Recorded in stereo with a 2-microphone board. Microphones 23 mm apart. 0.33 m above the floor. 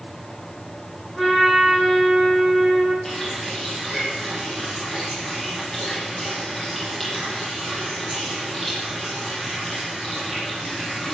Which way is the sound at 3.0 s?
10° left (ahead or behind).